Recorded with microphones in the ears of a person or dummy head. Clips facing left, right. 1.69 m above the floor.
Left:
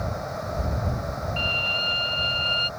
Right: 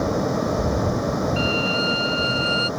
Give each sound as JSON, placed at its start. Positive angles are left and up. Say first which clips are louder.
{"t": 0.0, "sound": "a fan", "louder": "right 10 dB", "side_deg": -65}
{"t": 1.4, "sound": "a violin", "louder": "right 10 dB", "side_deg": -25}